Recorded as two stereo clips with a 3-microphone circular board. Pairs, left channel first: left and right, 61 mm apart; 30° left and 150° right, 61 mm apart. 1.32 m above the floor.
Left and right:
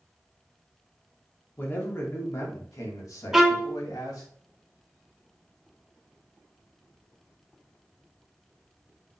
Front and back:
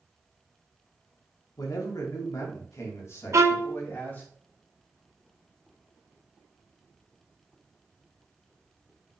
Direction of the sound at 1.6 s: 35° left.